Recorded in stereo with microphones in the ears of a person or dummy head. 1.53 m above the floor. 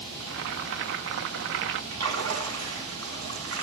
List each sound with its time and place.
0.2 s boiling: 60° right (ahead or behind), 1.4 m
1.9 s a splash: 70° right (ahead or behind), 8 m